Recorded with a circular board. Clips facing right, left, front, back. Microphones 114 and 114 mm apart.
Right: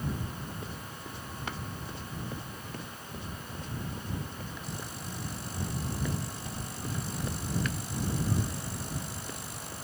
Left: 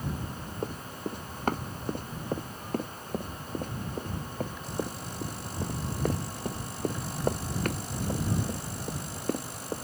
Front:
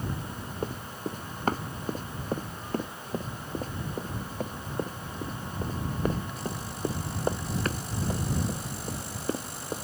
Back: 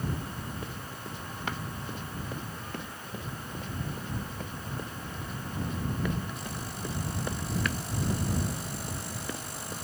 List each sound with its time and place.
0.6 s running footsteps: 50° left; by 9.8 s 55° left